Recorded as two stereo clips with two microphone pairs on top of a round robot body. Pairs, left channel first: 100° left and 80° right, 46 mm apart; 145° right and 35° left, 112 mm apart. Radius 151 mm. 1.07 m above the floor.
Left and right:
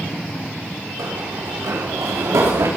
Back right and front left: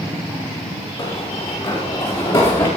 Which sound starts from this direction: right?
Running footsteps, at 1.0 s.